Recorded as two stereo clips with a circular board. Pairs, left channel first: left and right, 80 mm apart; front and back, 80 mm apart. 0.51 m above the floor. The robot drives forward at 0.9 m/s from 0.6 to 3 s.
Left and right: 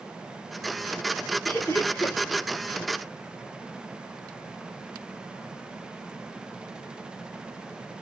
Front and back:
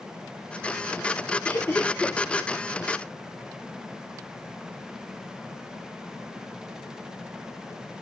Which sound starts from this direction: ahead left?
Laughter, at 1.4 s.